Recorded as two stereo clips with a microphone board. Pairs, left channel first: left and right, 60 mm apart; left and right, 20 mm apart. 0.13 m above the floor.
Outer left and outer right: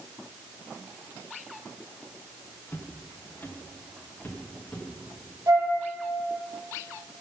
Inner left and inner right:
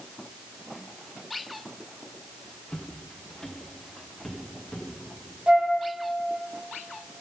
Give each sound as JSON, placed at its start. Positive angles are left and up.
{"t": 2.7, "sound": "footsteps", "side_deg": 40, "distance_m": 2.0}
{"t": 5.5, "sound": "a flute", "side_deg": -65, "distance_m": 2.5}